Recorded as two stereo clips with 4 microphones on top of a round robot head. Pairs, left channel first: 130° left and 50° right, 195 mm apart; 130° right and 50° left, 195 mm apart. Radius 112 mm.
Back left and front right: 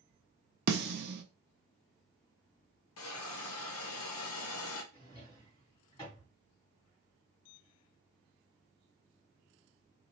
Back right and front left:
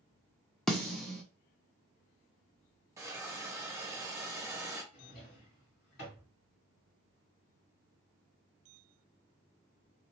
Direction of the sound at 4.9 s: 160° right.